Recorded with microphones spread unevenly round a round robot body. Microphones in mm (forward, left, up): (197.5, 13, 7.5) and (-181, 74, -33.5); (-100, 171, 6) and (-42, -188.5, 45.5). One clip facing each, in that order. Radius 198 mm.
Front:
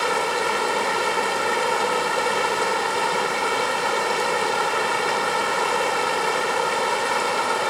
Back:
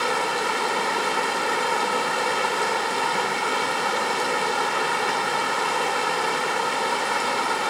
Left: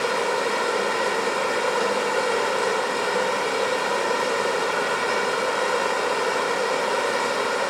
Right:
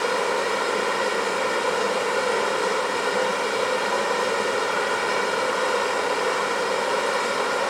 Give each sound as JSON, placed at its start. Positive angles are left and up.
{"t": 0.0, "sound": "running water", "azimuth_deg": 5, "distance_m": 1.7}